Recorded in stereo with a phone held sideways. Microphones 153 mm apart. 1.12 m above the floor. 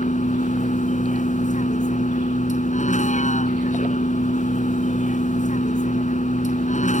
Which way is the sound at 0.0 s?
55° left (ahead or behind).